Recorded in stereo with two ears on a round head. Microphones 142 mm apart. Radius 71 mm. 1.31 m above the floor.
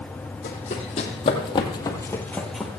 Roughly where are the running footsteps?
Left.